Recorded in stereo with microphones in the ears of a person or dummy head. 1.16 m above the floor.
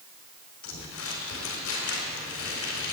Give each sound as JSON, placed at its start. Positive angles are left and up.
{"t": 0.6, "sound": "crumpling", "side_deg": 85, "distance_m": 3.5}